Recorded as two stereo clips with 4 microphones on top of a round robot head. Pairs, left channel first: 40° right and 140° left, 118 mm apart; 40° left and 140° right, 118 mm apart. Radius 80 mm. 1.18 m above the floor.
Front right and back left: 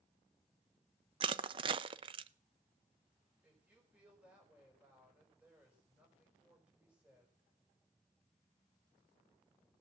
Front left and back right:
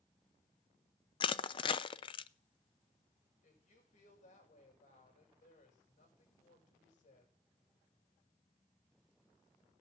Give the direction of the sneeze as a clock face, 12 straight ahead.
No sneeze in this recording.